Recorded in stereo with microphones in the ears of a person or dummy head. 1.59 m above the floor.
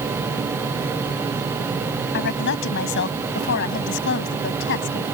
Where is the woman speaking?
60° left (ahead or behind); by 5.0 s 65° left (ahead or behind).